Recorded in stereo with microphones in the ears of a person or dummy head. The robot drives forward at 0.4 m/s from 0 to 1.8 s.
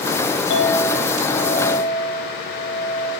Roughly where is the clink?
Left.